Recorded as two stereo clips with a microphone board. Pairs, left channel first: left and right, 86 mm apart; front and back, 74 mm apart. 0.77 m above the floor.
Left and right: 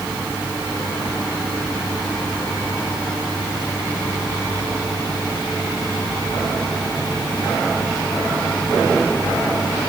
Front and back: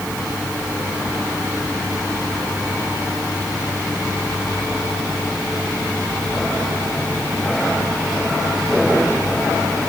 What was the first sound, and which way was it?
Only background noise.